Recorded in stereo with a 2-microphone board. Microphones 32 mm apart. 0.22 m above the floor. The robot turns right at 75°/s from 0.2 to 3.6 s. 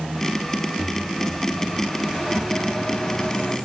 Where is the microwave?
15° right (ahead or behind), 1.3 m; by 3.6 s 25° left (ahead or behind), 1.3 m.